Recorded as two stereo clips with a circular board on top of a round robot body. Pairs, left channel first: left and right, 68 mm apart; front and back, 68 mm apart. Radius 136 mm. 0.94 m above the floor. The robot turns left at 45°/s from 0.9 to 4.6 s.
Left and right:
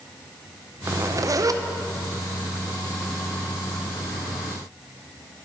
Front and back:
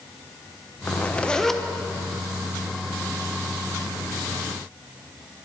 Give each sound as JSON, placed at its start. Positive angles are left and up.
{"t": 0.9, "sound": "a zipper", "azimuth_deg": -60, "distance_m": 0.7}